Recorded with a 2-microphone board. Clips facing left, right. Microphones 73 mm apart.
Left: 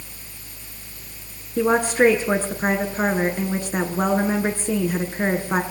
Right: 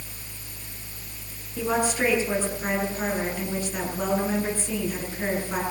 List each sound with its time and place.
1.6 s a woman speaking: 50° left (ahead or behind), 6 m